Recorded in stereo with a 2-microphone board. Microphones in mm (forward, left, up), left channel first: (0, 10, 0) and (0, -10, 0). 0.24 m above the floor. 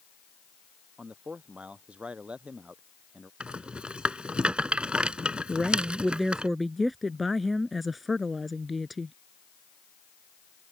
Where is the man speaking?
80° right.